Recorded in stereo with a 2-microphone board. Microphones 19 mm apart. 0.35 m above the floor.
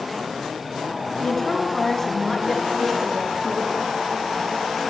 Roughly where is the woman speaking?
Left.